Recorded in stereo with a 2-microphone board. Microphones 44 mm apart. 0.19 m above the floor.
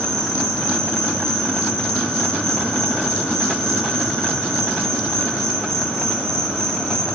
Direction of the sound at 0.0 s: 5° left (ahead or behind).